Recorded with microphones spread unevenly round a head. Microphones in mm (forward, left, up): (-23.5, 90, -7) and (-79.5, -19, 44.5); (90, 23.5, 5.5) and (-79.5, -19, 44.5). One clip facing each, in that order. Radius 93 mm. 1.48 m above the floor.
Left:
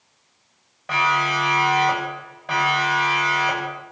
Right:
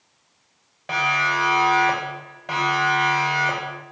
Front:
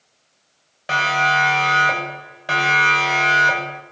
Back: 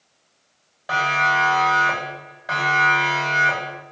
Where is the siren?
45° right, 10 m; by 3.8 s 35° right, 8.5 m.